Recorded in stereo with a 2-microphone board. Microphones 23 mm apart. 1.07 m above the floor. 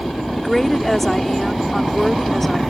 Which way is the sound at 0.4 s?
15° left (ahead or behind).